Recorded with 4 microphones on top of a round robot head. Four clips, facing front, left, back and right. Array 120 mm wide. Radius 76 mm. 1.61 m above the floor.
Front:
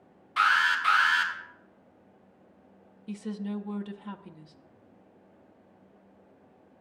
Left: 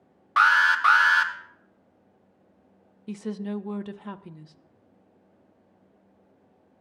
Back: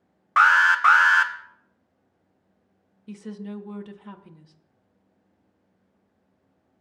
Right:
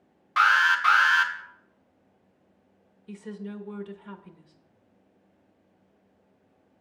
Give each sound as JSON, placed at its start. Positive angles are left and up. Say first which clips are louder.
{"t": 0.4, "sound": "an alarm", "louder": "left 2 dB, back 7 dB", "azimuth_deg": 155, "distance_m": 0.7}
{"t": 3.1, "sound": "a woman speaking", "louder": "left 6 dB, front 1 dB", "azimuth_deg": 90, "distance_m": 0.6}